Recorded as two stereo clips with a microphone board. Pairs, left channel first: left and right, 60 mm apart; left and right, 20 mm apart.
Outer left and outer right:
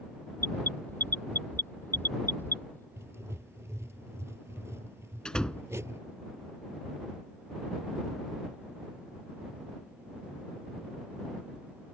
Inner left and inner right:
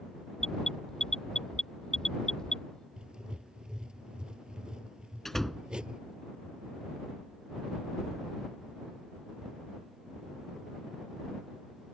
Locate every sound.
0.4 s an alarm: 35° left (ahead or behind)
3.0 s writing: 50° right (ahead or behind)
5.2 s a door slam: 15° left (ahead or behind)